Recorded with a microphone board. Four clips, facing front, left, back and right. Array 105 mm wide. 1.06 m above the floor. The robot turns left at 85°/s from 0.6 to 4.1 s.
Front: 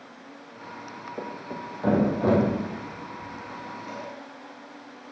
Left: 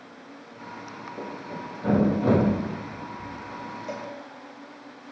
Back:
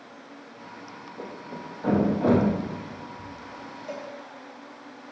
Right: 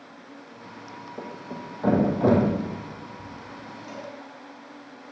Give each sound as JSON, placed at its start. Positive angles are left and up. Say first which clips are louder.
{"t": 1.2, "sound": "a thud", "louder": "left 1 dB, front 2 dB", "azimuth_deg": 5, "distance_m": 4.0}
{"t": 3.9, "sound": "a cowbell", "louder": "left 3 dB, back 4 dB", "azimuth_deg": 115, "distance_m": 1.9}